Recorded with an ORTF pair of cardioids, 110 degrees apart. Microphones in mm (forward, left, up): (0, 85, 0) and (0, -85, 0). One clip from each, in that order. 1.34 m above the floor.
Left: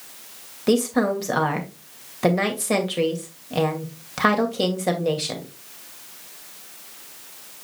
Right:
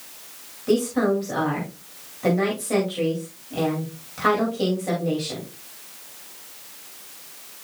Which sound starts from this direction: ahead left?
A woman speaking, at 0.7 s.